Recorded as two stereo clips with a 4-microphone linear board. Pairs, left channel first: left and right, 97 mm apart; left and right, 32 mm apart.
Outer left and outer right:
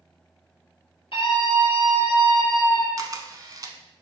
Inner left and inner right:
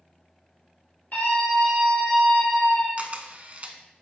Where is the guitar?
No guitar in this recording.